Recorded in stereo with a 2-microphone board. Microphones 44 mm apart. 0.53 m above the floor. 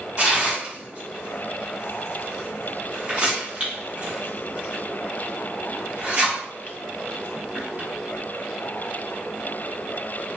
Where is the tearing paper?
30° right (ahead or behind), 1.4 m.